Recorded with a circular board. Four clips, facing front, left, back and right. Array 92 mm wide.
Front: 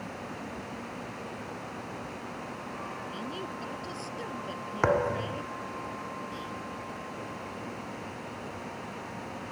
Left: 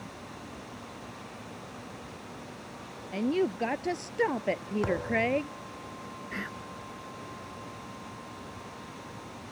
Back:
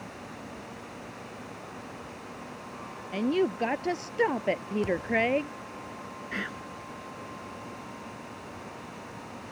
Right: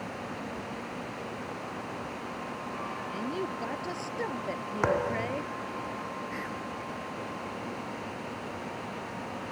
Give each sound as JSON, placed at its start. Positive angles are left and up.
{"t": 3.1, "sound": "a woman speaking", "azimuth_deg": 155}
{"t": 4.8, "sound": "a thud", "azimuth_deg": -30}
{"t": 6.3, "sound": "whispering", "azimuth_deg": 165}